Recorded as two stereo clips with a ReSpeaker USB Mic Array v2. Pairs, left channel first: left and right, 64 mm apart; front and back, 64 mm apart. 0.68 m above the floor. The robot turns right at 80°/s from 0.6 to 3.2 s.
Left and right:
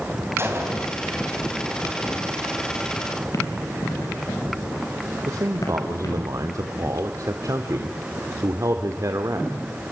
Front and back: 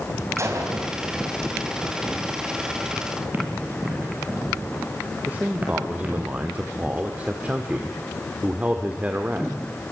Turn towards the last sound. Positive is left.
turn(degrees=-115)